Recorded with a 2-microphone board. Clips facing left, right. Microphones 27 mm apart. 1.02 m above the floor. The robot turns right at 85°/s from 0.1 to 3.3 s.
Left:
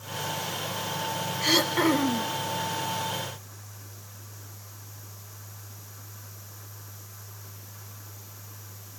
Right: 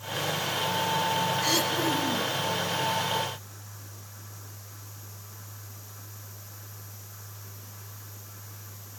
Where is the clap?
No clap in this recording.